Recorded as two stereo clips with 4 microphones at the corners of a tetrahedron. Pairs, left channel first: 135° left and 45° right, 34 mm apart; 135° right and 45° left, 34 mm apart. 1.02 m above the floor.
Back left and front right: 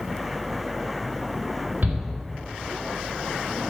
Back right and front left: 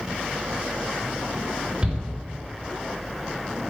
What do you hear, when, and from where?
1.8 s a shout: 15° right, 4 m